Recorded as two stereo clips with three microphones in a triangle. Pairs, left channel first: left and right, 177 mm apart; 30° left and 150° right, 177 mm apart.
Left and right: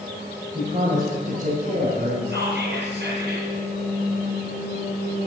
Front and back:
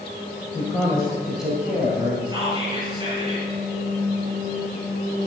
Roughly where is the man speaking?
Ahead right.